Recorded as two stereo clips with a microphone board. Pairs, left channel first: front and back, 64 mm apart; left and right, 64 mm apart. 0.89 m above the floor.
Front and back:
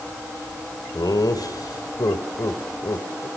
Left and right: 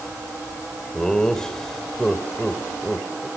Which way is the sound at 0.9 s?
10° left.